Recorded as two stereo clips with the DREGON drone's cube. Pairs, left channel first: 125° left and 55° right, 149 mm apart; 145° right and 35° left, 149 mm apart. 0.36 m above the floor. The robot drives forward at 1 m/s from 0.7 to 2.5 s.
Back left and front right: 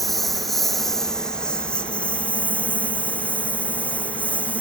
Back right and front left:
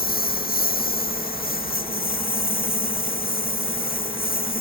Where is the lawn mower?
145° right; by 4.6 s 155° right.